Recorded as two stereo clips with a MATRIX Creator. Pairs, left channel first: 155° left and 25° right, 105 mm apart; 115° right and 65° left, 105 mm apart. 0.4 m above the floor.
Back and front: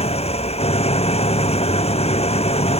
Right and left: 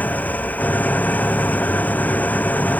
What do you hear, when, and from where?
0.0 s an engine running: 175° left